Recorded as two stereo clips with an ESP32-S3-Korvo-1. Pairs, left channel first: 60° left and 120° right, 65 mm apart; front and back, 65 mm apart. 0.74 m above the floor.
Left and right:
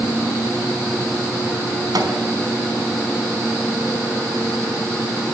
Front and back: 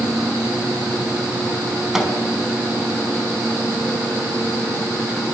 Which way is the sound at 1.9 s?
95° right.